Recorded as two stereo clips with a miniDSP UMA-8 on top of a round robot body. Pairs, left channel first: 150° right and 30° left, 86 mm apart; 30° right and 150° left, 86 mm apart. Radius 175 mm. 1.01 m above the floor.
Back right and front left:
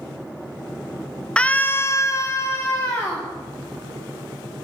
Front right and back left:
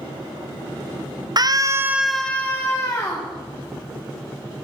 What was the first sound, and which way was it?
A scream, 135° left.